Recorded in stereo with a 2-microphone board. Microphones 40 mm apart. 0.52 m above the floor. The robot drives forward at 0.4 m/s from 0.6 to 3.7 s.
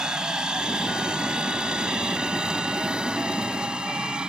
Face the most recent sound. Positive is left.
turn(degrees=-20)  # may be behind; listen again after turning